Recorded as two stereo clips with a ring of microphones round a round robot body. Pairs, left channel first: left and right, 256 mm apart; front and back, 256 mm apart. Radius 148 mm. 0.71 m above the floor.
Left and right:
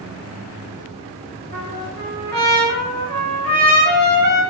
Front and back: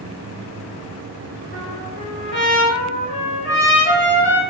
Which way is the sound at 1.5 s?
40° right.